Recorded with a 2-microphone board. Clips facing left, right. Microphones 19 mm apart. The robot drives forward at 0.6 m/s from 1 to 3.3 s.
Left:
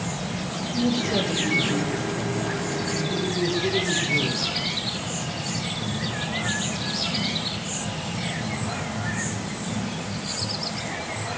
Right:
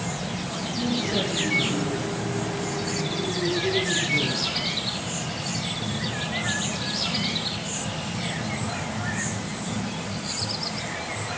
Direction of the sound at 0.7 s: 75° left (ahead or behind).